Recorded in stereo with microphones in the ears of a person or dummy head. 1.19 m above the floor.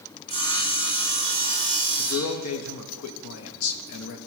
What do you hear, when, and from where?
0.3 s sawing: 25° left (ahead or behind), 1.4 m
2.0 s a man speaking: 85° left, 1.0 m